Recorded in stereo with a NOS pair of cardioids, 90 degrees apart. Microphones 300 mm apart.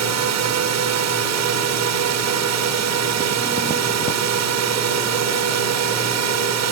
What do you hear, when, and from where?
0.0 s a drone: 65° right